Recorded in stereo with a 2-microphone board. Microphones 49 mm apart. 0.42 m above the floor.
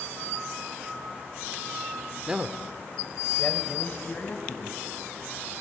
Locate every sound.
2.3 s a man speaking: 20° right (ahead or behind), 0.9 m; by 4.8 s 45° left (ahead or behind), 3 m